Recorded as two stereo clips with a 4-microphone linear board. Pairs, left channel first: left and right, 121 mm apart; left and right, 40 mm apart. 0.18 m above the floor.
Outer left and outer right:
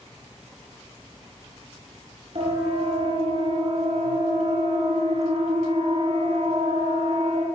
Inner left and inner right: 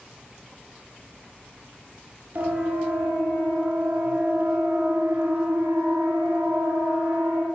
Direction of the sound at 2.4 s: 55° right (ahead or behind).